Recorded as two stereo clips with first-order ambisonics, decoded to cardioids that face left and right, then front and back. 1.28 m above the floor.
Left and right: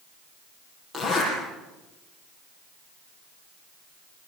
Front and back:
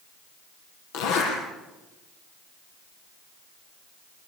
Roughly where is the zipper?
Ahead.